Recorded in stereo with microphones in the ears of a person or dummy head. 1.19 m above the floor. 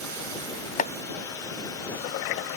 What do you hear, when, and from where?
0.8 s chopping: 35° left (ahead or behind)